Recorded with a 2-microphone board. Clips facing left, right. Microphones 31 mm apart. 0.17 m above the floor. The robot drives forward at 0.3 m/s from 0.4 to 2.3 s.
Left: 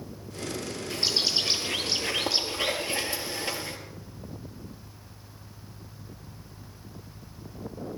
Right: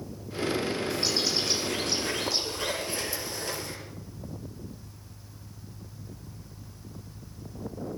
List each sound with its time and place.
0.9 s a bird: 35° left (ahead or behind), 4 m